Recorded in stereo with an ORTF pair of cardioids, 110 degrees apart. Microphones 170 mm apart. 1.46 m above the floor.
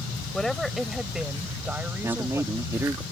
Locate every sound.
0.3 s a woman speaking: 5° left; by 2.7 s 15° right
2.0 s a man speaking: 15° right